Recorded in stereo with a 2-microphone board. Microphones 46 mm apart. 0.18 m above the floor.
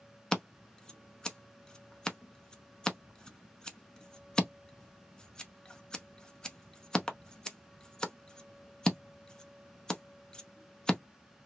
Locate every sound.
0.3 s scissors: 15° left (ahead or behind), 0.5 m